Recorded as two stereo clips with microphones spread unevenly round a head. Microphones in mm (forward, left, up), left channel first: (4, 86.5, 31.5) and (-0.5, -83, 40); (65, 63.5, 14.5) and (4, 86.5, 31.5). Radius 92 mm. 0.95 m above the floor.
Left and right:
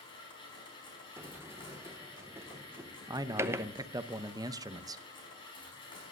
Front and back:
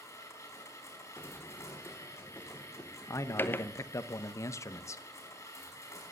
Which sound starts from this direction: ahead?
A sliding door, at 1.2 s.